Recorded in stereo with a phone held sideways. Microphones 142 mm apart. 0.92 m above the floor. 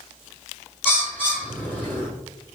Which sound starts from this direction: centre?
A bird, at 0.8 s.